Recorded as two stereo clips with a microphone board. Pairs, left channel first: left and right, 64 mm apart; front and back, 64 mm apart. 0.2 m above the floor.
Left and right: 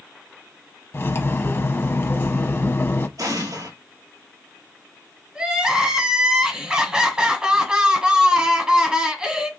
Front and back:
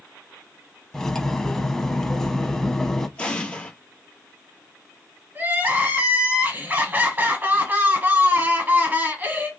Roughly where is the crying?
Behind right.